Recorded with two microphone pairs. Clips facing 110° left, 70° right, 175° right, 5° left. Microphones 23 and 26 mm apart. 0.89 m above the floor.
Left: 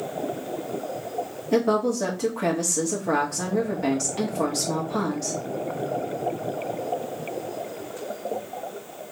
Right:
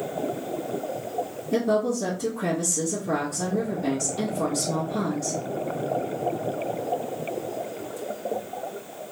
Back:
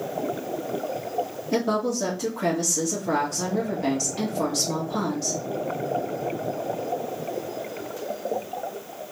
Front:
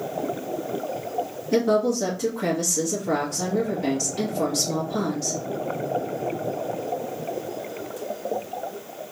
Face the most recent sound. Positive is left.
turn(degrees=110)